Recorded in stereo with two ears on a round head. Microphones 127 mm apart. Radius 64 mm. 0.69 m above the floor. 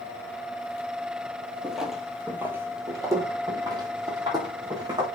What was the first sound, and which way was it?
Footsteps, 5° left (ahead or behind).